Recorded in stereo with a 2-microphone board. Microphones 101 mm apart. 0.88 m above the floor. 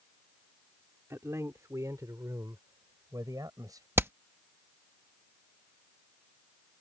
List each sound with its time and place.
1.1 s a man speaking: 30° right (ahead or behind); by 3.9 s 40° right (ahead or behind)
4.0 s hammering: 25° right (ahead or behind)